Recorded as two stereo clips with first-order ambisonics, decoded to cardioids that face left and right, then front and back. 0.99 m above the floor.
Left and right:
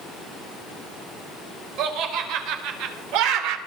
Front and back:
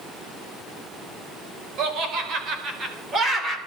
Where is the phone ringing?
No phone ringing in this recording.